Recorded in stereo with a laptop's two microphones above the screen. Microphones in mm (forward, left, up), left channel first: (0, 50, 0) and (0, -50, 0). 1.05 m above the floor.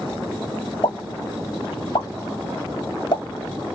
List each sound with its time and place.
0.8 s a pop: 50° left (ahead or behind), 2 m